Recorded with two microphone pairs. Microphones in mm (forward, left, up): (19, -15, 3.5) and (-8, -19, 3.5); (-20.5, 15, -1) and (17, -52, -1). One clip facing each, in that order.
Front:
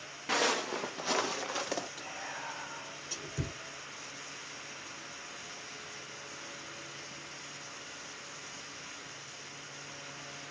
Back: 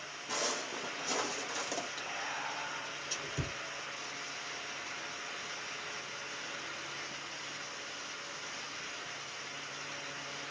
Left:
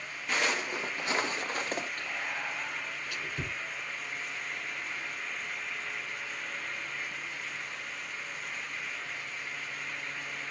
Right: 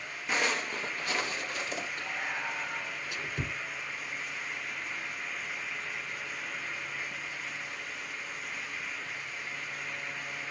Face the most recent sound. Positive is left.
turn(degrees=-105)